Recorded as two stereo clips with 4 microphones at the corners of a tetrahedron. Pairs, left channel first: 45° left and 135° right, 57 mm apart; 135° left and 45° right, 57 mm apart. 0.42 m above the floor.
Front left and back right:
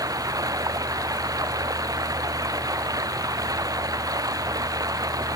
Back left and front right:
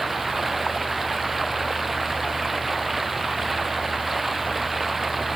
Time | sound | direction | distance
0.0 | running water | 130° right | ?